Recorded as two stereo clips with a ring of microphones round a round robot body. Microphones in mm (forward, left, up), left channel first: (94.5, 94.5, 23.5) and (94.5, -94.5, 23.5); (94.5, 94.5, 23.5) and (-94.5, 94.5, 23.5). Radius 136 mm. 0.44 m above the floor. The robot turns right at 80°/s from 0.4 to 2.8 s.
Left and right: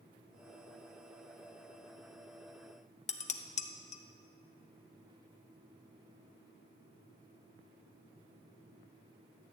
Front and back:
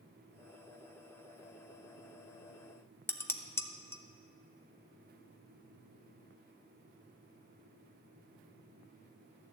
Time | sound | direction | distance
3.1 | dishes clattering | 70° left | 0.7 m